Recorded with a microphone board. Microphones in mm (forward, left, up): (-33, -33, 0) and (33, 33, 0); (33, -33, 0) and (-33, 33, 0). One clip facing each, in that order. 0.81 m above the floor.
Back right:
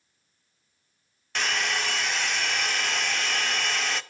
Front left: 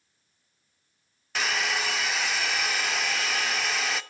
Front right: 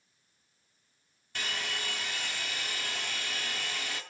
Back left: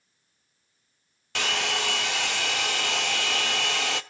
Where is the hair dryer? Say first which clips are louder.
Even, back left 9 dB; 135° left, 0.7 m.